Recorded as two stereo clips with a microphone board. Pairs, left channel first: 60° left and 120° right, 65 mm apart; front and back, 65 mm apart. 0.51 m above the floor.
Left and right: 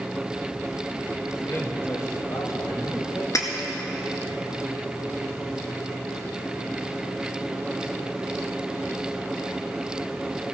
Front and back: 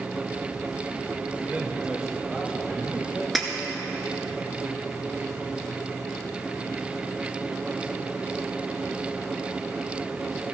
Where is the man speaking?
120° left, 1.8 m; by 3.2 s 65° left, 3.5 m.